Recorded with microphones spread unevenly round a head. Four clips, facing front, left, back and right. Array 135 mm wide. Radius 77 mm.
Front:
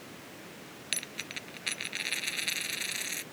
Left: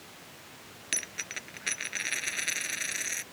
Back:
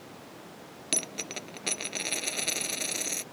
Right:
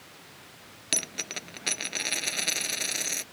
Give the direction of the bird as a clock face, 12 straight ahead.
I don't hear a bird.